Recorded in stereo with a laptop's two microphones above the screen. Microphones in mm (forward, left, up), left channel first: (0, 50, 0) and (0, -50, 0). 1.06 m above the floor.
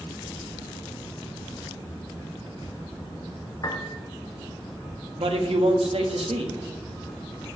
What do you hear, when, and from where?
3.6 s a piano: 40° left (ahead or behind), 1.0 m
5.2 s a man speaking: 75° right (ahead or behind), 1.6 m